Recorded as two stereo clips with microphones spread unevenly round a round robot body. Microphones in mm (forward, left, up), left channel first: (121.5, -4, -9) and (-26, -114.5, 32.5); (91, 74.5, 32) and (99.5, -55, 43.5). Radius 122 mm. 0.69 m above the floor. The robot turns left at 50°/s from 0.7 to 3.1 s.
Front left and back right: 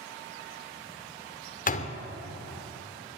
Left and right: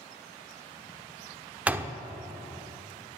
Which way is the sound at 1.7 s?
5° right.